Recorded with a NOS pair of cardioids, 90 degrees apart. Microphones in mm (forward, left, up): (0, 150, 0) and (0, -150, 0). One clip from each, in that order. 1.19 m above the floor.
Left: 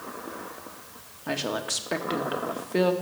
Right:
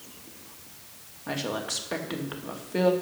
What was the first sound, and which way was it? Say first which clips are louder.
A woman speaking: left 2 dB; 20° left.